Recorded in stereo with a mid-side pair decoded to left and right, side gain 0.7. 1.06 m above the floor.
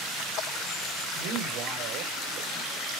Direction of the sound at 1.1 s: 65° right.